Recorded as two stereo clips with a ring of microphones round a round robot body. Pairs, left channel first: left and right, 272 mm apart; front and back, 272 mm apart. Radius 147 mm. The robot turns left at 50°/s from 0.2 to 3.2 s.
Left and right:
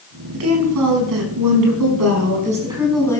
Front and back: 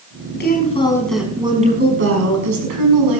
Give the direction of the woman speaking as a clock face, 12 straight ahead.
2 o'clock.